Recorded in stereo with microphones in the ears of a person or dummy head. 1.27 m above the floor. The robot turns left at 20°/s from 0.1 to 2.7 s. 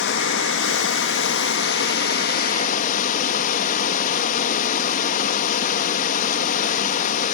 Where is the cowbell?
No cowbell in this recording.